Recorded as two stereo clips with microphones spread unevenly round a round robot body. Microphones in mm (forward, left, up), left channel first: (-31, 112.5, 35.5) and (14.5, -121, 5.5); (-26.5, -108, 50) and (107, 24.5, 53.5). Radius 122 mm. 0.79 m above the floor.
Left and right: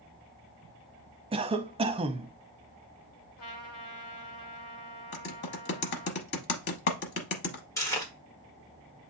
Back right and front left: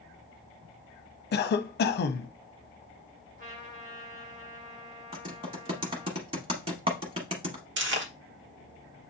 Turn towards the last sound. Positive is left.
turn(degrees=25)